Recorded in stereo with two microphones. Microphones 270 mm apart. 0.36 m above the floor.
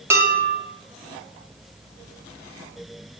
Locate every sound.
0.1 s dishes clattering: 10° right (ahead or behind), 1.0 m